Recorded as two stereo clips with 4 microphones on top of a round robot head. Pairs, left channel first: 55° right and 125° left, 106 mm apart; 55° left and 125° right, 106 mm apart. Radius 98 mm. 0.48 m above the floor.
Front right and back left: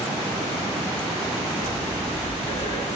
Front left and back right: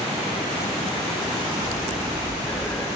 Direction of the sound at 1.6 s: 30° right.